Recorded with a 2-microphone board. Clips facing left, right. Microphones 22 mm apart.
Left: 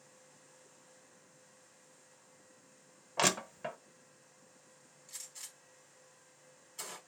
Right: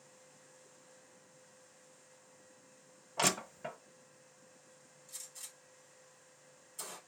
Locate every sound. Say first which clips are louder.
3.2 s crushing: left 2 dB; 20° left (ahead or behind), 0.7 m
5.1 s a gunshot: left 1 dB; 50° left (ahead or behind), 3 m